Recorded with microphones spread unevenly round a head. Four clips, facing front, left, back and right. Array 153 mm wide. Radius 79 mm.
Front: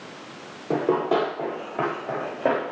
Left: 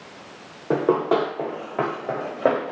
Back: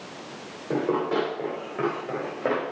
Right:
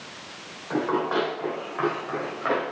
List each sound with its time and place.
0.7 s running footsteps: 80° left, 7.5 m; by 2.7 s 85° left, 6.5 m